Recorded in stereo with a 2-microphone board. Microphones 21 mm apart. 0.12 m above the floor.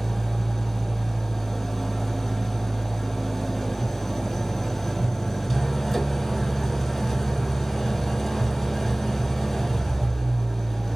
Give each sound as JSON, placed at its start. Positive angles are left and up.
{"t": 0.0, "sound": "an engine running", "side_deg": 0, "distance_m": 1.1}